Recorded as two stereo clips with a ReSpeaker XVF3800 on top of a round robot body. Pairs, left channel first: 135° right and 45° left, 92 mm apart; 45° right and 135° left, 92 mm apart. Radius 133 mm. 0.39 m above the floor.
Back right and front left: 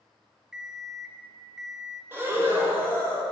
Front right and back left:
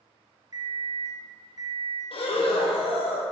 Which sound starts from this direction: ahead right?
Breathing, at 2.1 s.